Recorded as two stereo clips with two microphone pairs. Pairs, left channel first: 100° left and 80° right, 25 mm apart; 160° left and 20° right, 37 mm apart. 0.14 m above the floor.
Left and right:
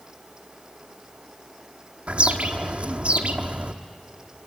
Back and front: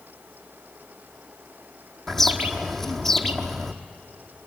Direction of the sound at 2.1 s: 115° right.